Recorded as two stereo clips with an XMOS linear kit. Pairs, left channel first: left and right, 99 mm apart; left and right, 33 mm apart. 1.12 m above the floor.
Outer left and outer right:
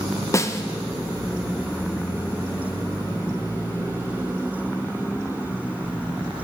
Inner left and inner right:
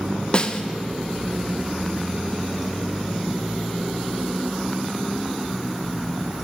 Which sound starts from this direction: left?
A snare drum, at 0.3 s.